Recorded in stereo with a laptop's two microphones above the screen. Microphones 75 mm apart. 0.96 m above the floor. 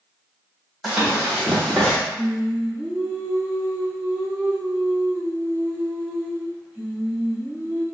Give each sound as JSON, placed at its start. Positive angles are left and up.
{"t": 0.8, "sound": "running footsteps", "side_deg": -5, "distance_m": 1.7}
{"t": 2.2, "sound": "singing", "side_deg": -10, "distance_m": 2.0}